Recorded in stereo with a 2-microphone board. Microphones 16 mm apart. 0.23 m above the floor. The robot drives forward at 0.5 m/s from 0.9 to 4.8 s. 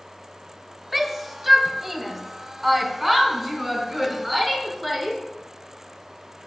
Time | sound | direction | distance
0.9 | a shout | 15° right (ahead or behind) | 0.9 m